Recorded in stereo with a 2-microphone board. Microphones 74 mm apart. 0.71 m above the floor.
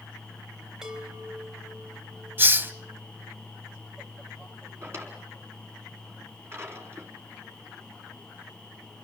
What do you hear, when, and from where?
0.8 s a chime: 5° right (ahead or behind), 4 m
2.4 s a hiss: 30° right (ahead or behind), 0.7 m
4.8 s a drawer: 35° right (ahead or behind), 4 m